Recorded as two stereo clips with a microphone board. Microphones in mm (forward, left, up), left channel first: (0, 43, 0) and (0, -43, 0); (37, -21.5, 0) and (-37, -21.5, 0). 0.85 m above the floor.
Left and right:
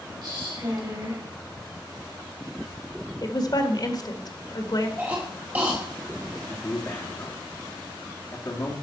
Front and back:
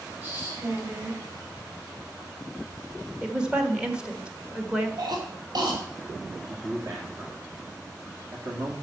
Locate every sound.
0.2 s a woman speaking: 120° right, 4.5 m
3.2 s a woman speaking: 105° left, 1.5 m
5.0 s a cough: 160° right, 2 m
6.5 s a man speaking: 140° left, 1.9 m